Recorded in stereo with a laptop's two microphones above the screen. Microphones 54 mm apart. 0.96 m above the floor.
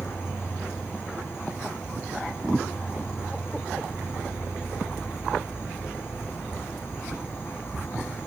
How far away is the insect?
About 0.9 m.